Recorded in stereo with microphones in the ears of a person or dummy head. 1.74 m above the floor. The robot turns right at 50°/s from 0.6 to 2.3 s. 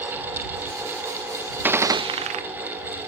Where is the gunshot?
170° right; by 2.4 s 135° right.